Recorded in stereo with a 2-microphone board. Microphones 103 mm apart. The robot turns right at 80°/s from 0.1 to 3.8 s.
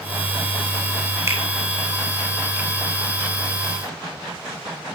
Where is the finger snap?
30° right (ahead or behind), 4 m; by 1.4 s 20° right (ahead or behind), 4 m.